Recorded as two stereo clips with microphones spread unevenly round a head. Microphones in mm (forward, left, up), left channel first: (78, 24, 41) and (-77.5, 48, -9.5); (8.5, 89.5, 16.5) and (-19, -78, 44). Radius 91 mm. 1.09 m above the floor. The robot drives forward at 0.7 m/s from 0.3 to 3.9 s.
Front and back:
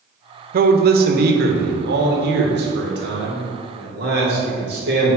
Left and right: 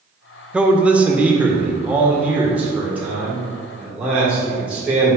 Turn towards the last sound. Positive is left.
turn(degrees=180)